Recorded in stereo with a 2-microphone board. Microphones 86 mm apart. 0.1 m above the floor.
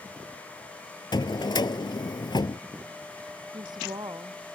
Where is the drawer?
60° left (ahead or behind).